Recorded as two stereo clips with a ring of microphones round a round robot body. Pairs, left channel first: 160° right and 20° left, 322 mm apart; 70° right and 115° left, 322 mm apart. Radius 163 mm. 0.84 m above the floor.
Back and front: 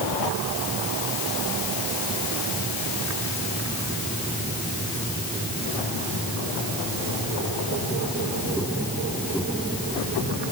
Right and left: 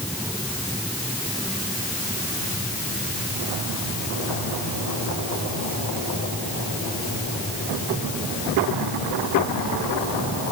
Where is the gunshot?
I don't hear a gunshot.